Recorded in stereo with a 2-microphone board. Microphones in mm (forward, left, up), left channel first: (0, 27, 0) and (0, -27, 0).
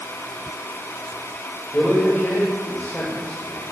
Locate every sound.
1.7 s a man speaking: 25° left (ahead or behind), 2 m